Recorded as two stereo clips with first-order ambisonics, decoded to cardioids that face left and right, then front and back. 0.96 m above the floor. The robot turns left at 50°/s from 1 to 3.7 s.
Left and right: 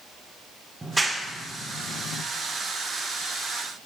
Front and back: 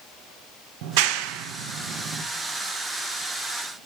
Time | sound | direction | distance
0.8 | a clap | 175° right | 0.5 m